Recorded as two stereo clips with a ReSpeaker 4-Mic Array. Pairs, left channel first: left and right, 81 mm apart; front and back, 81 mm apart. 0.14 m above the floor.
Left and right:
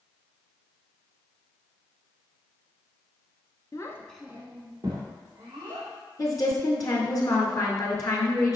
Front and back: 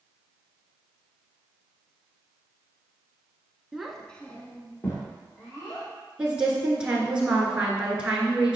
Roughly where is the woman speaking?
Left.